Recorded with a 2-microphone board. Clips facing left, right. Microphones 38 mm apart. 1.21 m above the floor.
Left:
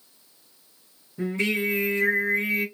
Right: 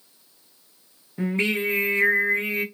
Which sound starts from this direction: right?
Singing, at 1.2 s.